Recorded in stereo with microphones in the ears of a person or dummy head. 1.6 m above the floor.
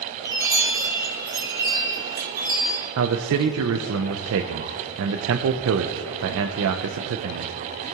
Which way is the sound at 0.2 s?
15° right (ahead or behind).